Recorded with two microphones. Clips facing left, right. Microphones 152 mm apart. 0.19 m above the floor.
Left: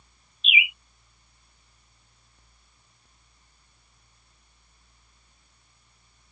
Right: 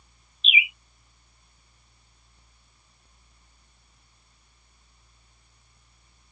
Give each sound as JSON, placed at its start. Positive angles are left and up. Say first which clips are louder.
{"t": 0.4, "sound": "a bird", "louder": "even", "side_deg": -35}